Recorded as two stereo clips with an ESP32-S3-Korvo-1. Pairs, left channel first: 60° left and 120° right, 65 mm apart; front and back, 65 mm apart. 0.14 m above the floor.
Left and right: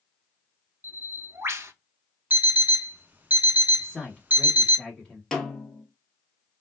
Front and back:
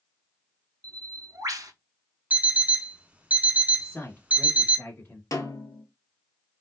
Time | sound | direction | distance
0.8 | a bird | 165° right | 0.6 m
2.3 | an alarm clock | 140° right | 0.6 m
3.8 | a man speaking | 5° right | 1.2 m
5.3 | a snare drum | 25° right | 0.8 m